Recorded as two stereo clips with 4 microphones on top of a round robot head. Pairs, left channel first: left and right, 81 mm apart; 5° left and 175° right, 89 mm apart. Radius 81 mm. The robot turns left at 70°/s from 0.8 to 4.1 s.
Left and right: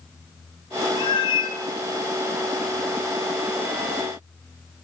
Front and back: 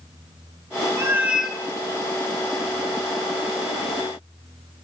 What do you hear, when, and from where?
1.0 s a cat meowing: 130° left, 1.4 m; by 1.6 s 85° left, 1.4 m